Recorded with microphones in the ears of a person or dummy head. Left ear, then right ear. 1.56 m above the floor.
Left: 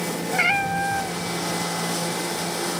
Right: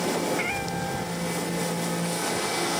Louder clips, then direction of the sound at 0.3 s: Left 7 dB; 50° left (ahead or behind).